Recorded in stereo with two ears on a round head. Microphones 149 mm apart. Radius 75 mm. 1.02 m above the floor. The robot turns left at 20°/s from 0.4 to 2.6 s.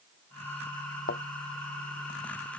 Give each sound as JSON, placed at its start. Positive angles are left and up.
{"t": 1.1, "sound": "a thud", "side_deg": 60}